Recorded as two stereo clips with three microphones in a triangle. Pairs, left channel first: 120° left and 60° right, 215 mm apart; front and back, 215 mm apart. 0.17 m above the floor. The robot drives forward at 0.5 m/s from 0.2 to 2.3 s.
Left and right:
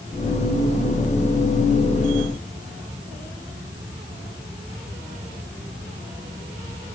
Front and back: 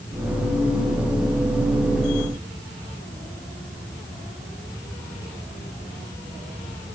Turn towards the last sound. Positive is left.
No sound to turn to.